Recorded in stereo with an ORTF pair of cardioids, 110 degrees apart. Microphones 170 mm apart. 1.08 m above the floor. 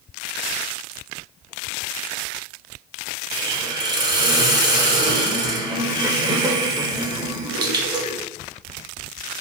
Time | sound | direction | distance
3.3 | a hiss | 25° right | 0.8 m